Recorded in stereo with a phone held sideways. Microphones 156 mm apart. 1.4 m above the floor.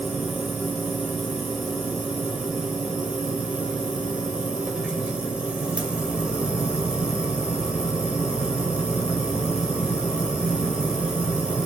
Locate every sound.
0.0 s a machine running: 5° right (ahead or behind), 1.9 m